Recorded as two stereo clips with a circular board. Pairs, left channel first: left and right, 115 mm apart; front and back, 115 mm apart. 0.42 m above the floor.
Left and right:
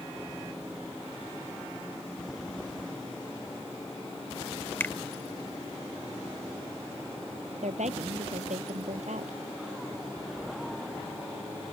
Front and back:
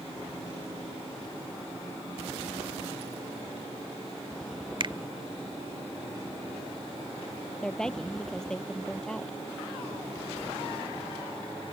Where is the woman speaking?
85° right.